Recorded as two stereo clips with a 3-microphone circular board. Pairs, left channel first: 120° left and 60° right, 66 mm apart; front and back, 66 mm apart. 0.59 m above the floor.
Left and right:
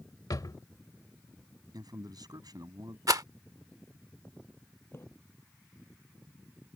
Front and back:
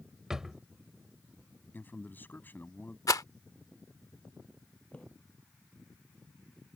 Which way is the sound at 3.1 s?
35° right.